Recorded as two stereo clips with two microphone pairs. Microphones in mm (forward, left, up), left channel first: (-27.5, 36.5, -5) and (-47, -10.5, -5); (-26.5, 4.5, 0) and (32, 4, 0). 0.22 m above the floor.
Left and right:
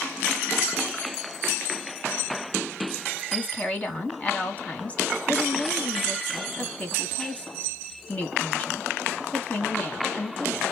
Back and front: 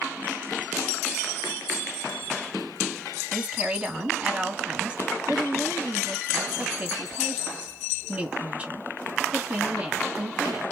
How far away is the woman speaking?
About 1.9 m.